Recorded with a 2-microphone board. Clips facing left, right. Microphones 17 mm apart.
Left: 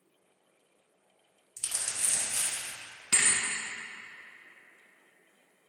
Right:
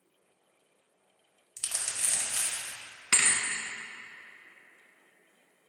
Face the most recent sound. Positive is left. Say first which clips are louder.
# right 1 dB
turn(degrees=-40)  # may be behind; listen again after turning